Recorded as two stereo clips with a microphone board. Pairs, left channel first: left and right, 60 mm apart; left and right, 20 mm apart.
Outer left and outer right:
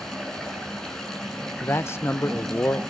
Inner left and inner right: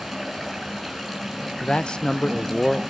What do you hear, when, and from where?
0.0 s running water: 10° left (ahead or behind), 8.5 m
1.6 s a man speaking: 45° left (ahead or behind), 0.5 m